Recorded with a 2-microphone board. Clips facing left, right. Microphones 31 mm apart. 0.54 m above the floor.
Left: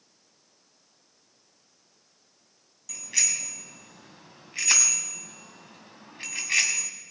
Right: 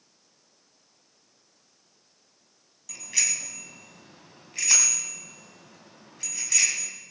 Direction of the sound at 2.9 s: 5° right (ahead or behind).